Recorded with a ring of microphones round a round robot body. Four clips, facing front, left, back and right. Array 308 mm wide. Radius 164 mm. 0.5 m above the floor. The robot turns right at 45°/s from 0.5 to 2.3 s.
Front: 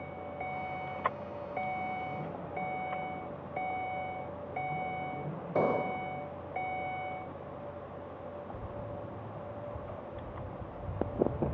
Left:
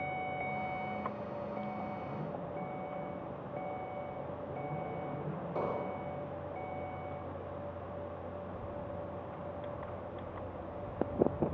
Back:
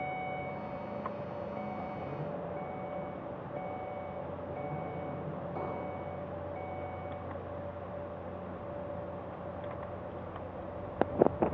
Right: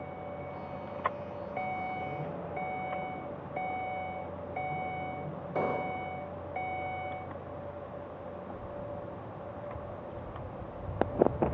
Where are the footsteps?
5° left, 1.2 m; by 11.6 s 45° right, 3.5 m.